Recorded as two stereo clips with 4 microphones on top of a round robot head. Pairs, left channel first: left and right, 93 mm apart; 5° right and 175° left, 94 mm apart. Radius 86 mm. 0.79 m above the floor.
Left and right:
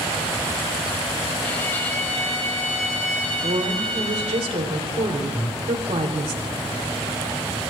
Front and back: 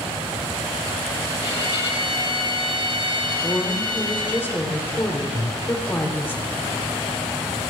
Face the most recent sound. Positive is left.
turn(degrees=40)